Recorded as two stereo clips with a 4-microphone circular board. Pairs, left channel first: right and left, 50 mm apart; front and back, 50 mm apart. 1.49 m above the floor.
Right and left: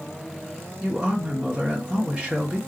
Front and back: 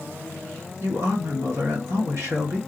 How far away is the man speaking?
About 1.7 m.